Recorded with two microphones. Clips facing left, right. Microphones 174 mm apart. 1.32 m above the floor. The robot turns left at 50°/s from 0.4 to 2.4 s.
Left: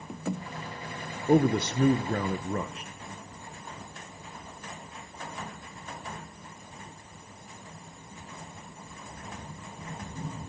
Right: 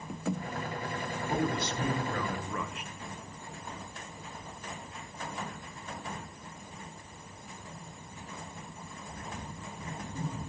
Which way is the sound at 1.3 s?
95° left.